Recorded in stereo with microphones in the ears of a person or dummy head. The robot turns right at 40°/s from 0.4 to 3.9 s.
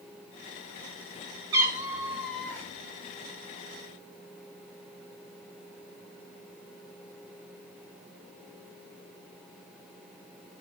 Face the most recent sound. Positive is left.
turn(degrees=65)